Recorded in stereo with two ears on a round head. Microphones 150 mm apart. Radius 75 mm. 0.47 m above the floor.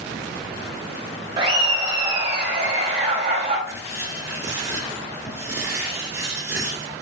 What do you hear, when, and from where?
1.4 s laughter: 35° right (ahead or behind), 2 m; by 3.6 s 50° right (ahead or behind), 3.5 m
3.7 s writing: 15° right (ahead or behind), 1.7 m